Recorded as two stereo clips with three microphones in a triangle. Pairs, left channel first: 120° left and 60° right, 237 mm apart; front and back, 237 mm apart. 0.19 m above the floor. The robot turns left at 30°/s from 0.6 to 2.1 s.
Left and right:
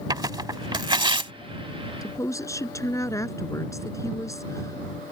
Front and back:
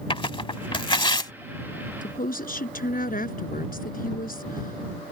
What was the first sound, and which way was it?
Tearing paper, 20° right.